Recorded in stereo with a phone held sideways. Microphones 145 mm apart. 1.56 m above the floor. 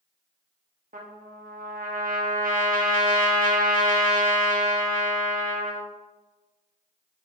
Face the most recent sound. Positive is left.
turn(degrees=-70)  # may be behind; listen again after turning